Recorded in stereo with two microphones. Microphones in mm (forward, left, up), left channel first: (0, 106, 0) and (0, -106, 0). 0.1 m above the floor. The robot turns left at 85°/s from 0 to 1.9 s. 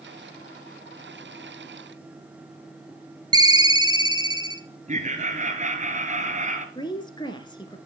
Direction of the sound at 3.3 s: 20° right (ahead or behind).